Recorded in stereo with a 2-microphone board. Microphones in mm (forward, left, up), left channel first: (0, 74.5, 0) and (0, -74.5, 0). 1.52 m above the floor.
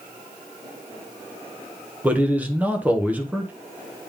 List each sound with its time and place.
2.0 s a man speaking: 10° right (ahead or behind), 1.2 m